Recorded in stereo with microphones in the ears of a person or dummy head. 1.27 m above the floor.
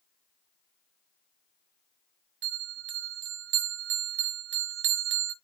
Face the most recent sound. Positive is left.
turn(degrees=-60)  # may be behind; listen again after turning